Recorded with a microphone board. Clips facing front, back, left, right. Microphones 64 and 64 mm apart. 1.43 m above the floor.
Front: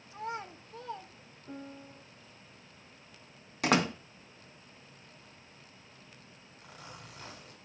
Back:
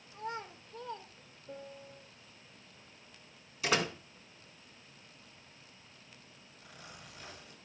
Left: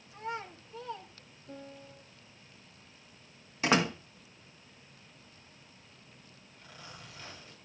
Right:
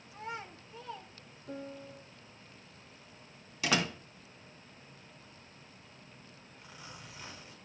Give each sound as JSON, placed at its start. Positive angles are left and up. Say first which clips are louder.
{"t": 0.1, "sound": "a child speaking", "louder": "front 2 dB, left 3 dB", "azimuth_deg": 0, "distance_m": 2.5}
{"t": 1.5, "sound": "a piano", "louder": "front 2 dB, right 4 dB", "azimuth_deg": -50, "distance_m": 2.0}
{"t": 3.6, "sound": "a door slam", "louder": "front 4 dB, left 4 dB", "azimuth_deg": 30, "distance_m": 1.9}
{"t": 6.6, "sound": "a zipper", "louder": "front 3 dB, left 1 dB", "azimuth_deg": -15, "distance_m": 5.0}